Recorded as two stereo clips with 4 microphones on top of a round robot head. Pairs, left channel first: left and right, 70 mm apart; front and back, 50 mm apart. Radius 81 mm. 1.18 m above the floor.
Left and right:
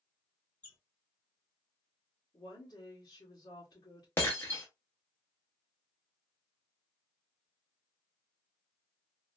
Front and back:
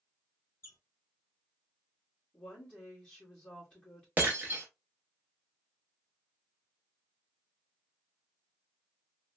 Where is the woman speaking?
60° left, 1.6 m.